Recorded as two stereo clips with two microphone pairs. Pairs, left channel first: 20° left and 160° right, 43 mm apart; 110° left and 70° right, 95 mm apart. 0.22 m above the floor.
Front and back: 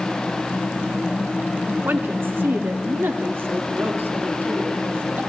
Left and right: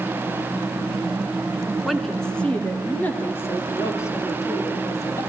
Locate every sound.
1.8 s a woman speaking: 155° right, 2.5 m; by 5.2 s 170° left, 6.5 m